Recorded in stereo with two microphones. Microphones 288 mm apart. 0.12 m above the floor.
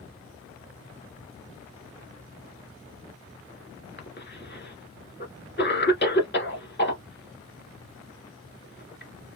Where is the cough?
40° left (ahead or behind), 1.5 m.